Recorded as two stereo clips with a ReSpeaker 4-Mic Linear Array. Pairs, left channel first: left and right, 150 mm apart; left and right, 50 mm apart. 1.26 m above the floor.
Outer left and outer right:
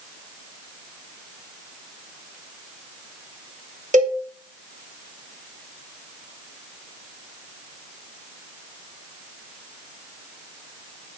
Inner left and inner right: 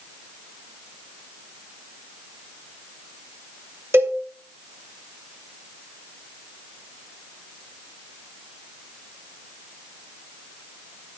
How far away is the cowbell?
About 3 m.